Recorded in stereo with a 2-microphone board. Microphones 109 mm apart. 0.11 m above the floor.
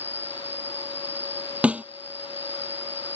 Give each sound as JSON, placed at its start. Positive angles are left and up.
{"t": 0.0, "sound": "an insect", "side_deg": -20}
{"t": 1.6, "sound": "a snare drum", "side_deg": -10}